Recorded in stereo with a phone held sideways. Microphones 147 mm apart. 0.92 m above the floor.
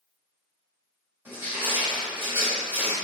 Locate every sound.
1.2 s crushing: 15° right (ahead or behind), 1.5 m